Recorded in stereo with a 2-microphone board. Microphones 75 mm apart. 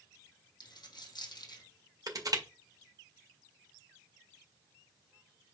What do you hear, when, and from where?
0.6 s a dropped coin: 65° left (ahead or behind), 3 m
2.1 s crushing: 55° right (ahead or behind), 1.9 m